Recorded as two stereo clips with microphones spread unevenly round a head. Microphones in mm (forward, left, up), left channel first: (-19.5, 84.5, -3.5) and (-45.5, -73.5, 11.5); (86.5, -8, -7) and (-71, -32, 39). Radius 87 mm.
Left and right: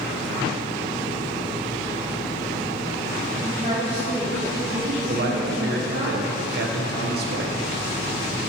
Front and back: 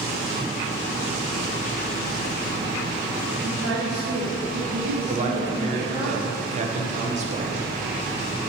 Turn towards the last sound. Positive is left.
turn(degrees=-125)